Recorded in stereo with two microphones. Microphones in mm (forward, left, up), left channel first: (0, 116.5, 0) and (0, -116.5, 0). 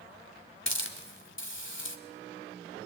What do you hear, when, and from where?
0.7 s a hiss: 55° left (ahead or behind), 1.6 m